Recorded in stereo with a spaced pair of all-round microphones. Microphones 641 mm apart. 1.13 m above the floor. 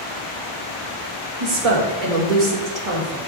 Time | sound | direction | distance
1.4 | a woman speaking | 60° right (ahead or behind) | 1.8 m